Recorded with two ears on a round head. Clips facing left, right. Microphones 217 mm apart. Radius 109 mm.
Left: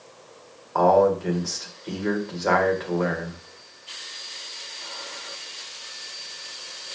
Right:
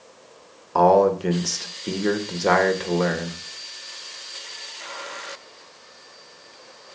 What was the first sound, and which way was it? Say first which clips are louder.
A man speaking: right 2 dB; 45° right (ahead or behind).